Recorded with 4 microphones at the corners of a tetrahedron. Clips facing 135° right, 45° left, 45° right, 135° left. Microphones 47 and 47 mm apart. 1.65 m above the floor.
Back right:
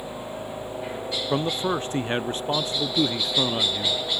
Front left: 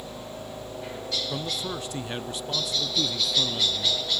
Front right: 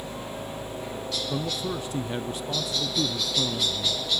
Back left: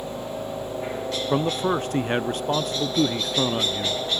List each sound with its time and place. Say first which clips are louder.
0.0 s a helicopter: back right 4 dB, back left 4 dB; 160° left
1.3 s a man speaking: back right 7 dB, back left 10 dB; 170° left